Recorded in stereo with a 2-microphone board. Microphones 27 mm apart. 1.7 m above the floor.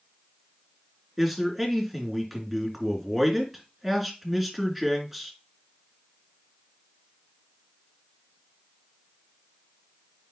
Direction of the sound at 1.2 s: 10° right (ahead or behind).